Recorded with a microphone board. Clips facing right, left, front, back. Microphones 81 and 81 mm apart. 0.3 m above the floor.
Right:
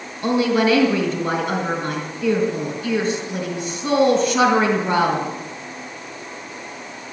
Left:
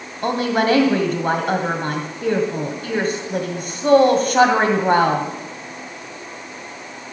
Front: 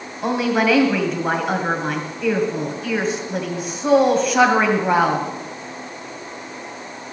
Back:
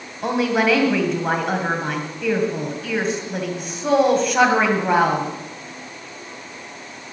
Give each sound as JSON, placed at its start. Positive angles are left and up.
{"t": 0.2, "sound": "a woman speaking", "azimuth_deg": 90, "distance_m": 2.0}